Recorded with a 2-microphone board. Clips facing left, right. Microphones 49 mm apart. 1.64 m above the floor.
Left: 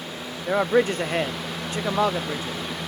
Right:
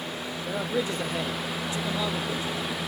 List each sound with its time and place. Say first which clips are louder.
0.5 s a man speaking: left 9 dB; 55° left (ahead or behind), 0.6 m